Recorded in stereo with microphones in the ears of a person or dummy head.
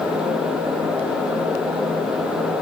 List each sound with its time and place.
Only background noise.